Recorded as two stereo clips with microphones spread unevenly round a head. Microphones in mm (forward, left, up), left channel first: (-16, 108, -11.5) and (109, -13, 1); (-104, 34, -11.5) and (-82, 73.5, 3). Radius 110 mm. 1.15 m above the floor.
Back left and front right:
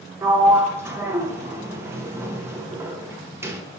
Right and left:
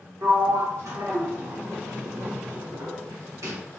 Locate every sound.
0.2 s a sliding door: 35° left, 1.2 m